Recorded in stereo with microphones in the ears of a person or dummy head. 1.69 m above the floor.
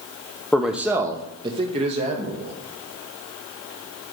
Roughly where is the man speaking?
Centre.